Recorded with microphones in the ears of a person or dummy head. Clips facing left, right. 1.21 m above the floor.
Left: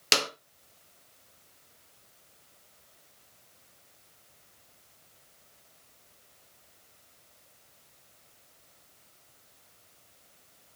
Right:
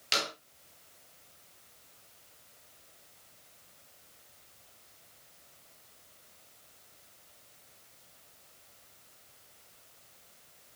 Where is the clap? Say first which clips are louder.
Left 5 dB; 70° left (ahead or behind), 1.6 m.